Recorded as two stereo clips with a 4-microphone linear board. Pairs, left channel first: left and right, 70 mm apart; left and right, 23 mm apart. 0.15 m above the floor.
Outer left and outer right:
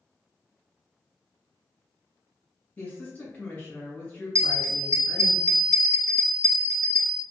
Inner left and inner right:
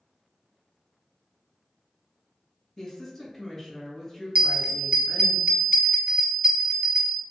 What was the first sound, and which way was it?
A woman speaking, 20° left (ahead or behind).